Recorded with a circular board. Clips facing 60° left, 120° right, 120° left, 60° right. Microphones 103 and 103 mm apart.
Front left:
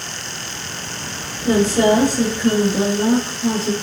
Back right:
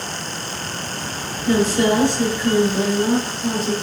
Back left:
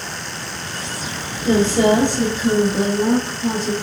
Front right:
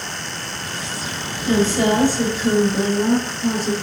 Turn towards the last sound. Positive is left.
turn(degrees=15)